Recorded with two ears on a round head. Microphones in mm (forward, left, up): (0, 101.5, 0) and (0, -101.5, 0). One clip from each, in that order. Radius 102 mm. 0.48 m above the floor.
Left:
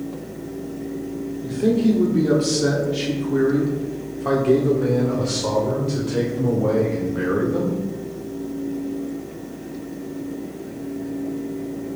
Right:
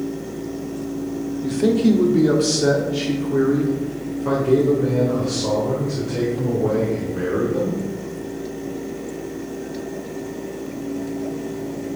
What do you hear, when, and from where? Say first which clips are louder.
1.4 s a man speaking: right 2 dB; 35° right (ahead or behind), 1.3 m; by 7.8 s 60° left (ahead or behind), 3 m